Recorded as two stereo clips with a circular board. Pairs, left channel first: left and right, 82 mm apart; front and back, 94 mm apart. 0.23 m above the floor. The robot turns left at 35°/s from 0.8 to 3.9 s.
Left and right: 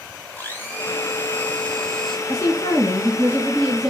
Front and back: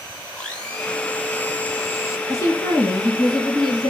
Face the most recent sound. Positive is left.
turn(degrees=0)